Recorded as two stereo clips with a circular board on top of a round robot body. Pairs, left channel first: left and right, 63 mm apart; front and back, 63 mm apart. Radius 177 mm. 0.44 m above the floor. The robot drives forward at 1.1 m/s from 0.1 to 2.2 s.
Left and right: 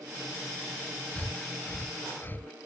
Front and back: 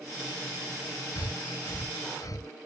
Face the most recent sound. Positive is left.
turn(degrees=30)